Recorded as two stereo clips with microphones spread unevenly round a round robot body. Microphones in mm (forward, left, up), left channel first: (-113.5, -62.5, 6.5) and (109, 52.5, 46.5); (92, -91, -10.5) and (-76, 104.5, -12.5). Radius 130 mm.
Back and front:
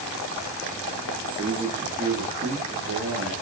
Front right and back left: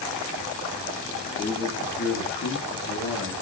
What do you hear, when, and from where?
1.4 s a man speaking: 20° right, 0.7 m; by 3.3 s 25° right, 1.4 m